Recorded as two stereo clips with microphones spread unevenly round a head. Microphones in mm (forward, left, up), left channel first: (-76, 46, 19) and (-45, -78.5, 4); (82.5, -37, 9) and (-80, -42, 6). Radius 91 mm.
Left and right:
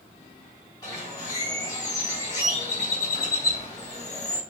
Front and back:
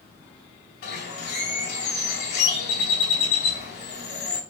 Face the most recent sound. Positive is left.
turn(degrees=35)